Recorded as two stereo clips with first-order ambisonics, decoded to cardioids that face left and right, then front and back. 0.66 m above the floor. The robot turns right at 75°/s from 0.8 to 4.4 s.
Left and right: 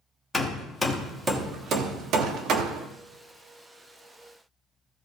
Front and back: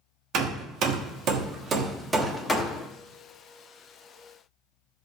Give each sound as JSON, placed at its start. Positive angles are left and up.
{"t": 0.3, "sound": "hammering", "azimuth_deg": 165, "distance_m": 1.0}